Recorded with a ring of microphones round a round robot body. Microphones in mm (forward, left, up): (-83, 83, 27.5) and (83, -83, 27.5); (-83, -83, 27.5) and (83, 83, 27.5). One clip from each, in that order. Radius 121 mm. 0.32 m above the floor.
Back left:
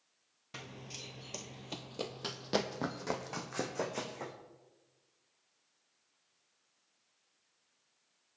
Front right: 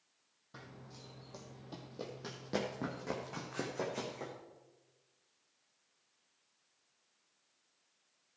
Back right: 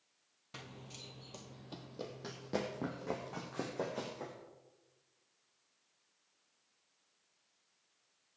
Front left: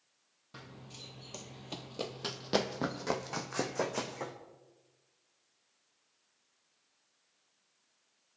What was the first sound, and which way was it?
Running footsteps, 160° left.